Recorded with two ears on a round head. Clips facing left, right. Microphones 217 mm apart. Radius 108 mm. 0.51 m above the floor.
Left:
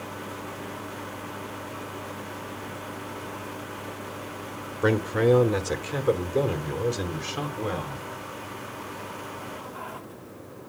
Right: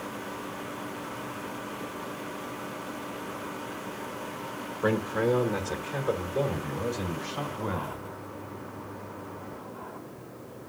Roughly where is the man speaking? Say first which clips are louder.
Left 4 dB; left.